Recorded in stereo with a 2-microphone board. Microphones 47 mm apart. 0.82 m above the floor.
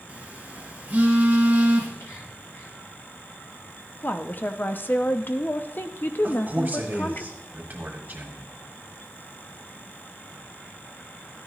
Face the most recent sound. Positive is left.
turn(degrees=-40)  # may be behind; listen again after turning